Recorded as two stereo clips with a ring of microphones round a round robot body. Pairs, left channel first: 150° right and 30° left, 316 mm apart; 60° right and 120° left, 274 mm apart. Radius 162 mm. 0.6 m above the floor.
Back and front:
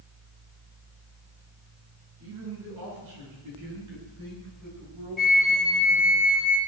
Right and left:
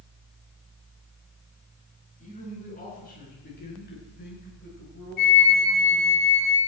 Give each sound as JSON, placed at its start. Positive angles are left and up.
{"t": 2.2, "sound": "a man speaking", "azimuth_deg": 5, "distance_m": 8.0}
{"t": 5.2, "sound": "a flute", "azimuth_deg": -60, "distance_m": 3.5}